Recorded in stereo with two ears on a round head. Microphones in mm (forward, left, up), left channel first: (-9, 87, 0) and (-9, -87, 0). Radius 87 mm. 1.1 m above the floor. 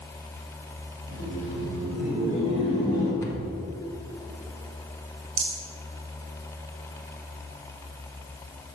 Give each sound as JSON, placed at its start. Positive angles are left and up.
{"t": 1.1, "sound": "laughter", "side_deg": 45, "distance_m": 2.5}
{"t": 3.2, "sound": "a cupboard door", "side_deg": 15, "distance_m": 0.9}
{"t": 5.4, "sound": "a rattle", "side_deg": -40, "distance_m": 1.7}